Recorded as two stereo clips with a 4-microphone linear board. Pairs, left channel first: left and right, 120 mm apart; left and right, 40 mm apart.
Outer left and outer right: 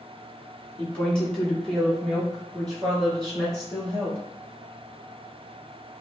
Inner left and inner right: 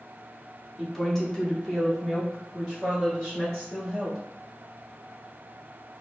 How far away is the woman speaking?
About 1.0 m.